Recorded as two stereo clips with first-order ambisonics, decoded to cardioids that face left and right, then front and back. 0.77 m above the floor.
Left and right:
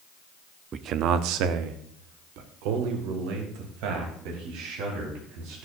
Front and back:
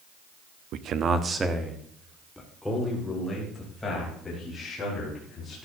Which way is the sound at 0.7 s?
145° right.